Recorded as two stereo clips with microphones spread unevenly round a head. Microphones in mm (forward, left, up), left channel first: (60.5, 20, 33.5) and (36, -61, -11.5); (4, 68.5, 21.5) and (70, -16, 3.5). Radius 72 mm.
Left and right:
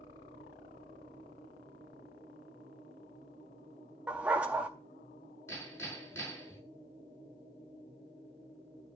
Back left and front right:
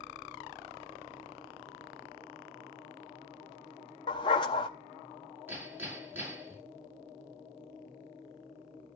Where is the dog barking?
150° left, 0.6 m.